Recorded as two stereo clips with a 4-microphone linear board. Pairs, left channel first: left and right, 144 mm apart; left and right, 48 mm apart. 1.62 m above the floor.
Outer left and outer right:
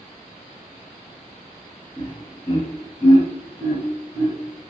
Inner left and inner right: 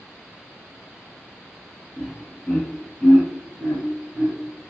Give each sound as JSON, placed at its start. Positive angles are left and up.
{"t": 2.0, "sound": "laughter", "side_deg": 40, "distance_m": 1.9}